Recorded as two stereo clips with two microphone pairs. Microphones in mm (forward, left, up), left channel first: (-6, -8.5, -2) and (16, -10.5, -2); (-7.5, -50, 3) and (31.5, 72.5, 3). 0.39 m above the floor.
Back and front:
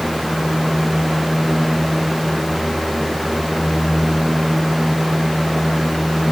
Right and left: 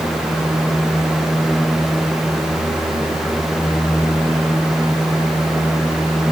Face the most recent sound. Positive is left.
No sound to turn to.